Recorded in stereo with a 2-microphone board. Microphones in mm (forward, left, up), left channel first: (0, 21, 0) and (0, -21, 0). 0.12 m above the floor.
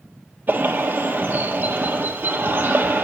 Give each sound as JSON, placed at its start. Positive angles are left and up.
{"t": 0.5, "sound": "a bird", "side_deg": -50, "distance_m": 1.4}